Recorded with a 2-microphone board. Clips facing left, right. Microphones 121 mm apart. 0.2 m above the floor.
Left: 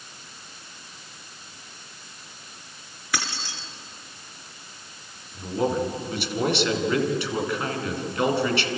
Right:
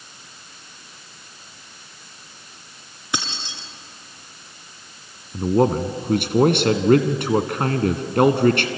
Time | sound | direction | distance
3.1 | keys jangling | 20° right (ahead or behind) | 1.9 m
5.3 | a man speaking | 55° right (ahead or behind) | 1.9 m